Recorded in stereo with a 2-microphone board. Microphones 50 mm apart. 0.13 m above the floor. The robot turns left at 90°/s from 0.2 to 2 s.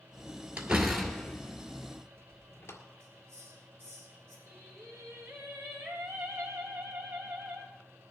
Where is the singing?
60° right (ahead or behind), 4.5 m.